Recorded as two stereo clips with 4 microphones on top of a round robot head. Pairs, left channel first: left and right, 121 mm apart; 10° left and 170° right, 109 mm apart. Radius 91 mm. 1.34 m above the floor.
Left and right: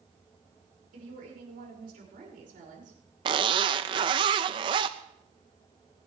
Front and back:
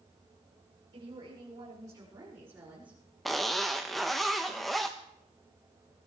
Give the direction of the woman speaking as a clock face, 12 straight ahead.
4 o'clock.